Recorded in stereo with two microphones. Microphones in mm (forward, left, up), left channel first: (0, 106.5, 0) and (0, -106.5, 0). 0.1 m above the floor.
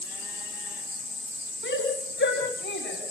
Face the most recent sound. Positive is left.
turn(degrees=75)  # may be behind; listen again after turning